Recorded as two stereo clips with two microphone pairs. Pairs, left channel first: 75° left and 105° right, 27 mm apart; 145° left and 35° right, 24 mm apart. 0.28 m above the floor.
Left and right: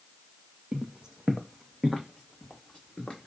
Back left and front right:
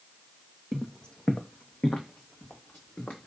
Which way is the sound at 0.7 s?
145° right.